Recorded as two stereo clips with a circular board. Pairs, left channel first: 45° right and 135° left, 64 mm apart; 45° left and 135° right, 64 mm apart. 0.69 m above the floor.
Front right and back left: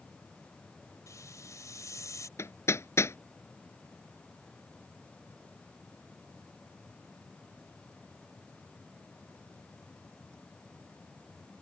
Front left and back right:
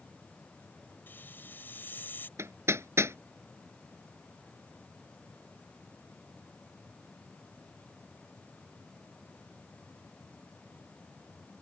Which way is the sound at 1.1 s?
10° right.